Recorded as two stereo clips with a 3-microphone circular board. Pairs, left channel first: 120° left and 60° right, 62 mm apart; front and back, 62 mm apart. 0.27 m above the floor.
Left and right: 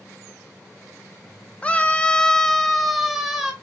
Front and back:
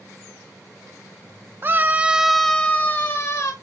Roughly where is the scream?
Behind.